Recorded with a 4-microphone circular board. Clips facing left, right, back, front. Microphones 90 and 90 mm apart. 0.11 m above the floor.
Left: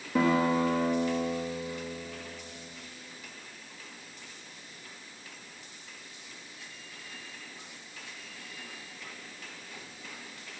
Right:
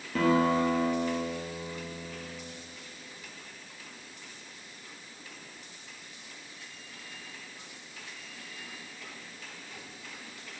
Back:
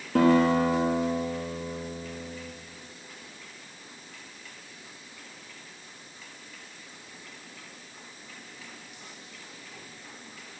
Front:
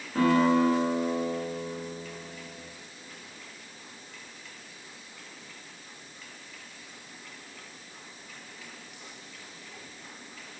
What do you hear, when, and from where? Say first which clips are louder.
0.1 s a guitar: right 1 dB, back 2 dB; 165° left, 1.7 m